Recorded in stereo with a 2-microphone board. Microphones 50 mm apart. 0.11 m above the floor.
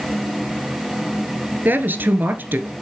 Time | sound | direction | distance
1.6 | a woman speaking | 45° right (ahead or behind) | 1.4 m